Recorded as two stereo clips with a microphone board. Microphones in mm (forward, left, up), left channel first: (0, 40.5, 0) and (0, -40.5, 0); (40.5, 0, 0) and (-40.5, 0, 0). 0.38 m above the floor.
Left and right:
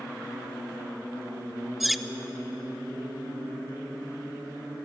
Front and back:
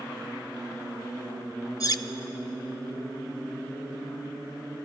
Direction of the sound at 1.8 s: Straight ahead.